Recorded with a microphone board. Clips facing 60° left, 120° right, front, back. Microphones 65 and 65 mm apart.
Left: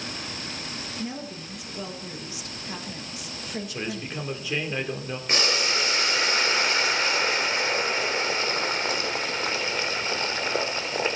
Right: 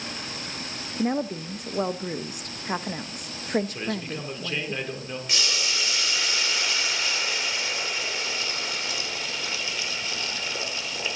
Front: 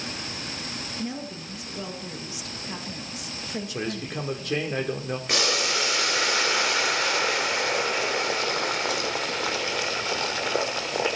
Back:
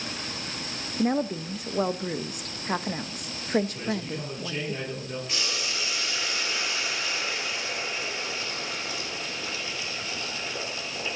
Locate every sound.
1.0 s a woman speaking: 150° right, 0.7 m
3.7 s a man speaking: 20° right, 2.5 m
5.3 s boiling: 15° left, 1.1 m